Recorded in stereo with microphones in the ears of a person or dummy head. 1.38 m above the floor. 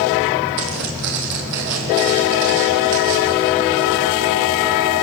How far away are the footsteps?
About 3.5 m.